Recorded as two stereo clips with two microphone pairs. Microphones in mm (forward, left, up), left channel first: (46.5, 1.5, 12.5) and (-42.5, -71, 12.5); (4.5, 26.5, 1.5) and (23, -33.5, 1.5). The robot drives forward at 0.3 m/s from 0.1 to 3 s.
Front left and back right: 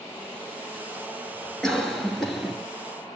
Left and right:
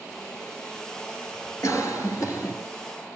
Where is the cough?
125° left, 3 m; by 2.5 s 130° left, 3 m.